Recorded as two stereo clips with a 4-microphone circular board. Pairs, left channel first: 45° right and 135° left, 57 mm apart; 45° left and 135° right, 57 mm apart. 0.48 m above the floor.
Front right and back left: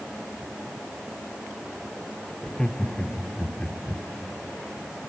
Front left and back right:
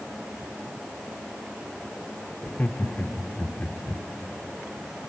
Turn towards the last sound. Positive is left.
turn(degrees=20)